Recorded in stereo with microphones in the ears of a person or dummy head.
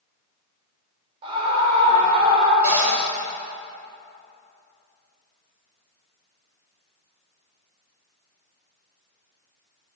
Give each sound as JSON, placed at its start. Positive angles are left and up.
{"t": 1.2, "sound": "a scream", "side_deg": -30, "distance_m": 5.5}
{"t": 2.6, "sound": "a cupboard door", "side_deg": -10, "distance_m": 4.5}